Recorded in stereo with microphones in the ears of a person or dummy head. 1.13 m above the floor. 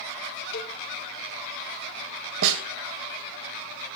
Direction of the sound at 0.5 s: 60° left (ahead or behind).